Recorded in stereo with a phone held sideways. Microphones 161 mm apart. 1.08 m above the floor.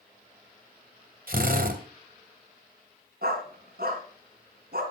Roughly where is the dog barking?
Right.